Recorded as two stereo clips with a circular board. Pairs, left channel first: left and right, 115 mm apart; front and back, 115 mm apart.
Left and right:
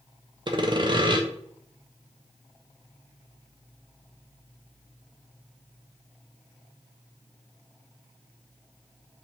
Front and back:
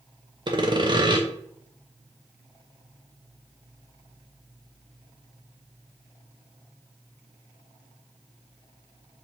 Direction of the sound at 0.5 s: 135° right.